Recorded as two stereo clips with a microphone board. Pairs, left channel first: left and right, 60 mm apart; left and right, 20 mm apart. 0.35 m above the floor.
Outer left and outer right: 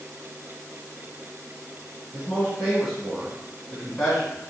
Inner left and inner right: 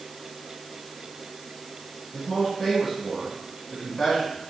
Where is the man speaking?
Centre (ahead or behind), 2.5 m.